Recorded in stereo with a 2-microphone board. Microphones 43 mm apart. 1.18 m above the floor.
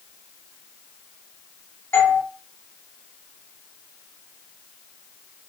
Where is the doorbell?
65° left (ahead or behind), 6 m.